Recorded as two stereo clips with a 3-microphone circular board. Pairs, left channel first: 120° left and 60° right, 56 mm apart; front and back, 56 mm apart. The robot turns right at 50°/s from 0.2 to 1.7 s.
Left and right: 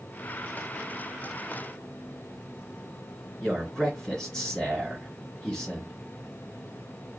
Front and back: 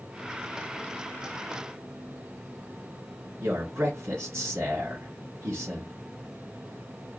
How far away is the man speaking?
About 2 m.